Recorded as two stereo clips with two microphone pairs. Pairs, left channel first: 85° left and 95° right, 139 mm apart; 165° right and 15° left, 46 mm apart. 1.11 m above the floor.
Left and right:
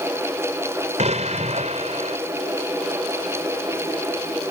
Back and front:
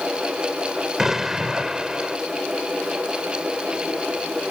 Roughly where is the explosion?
Ahead right.